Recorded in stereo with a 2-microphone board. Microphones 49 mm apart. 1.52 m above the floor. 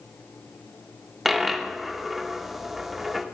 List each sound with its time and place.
1.2 s a dropped coin: 5° right (ahead or behind), 0.8 m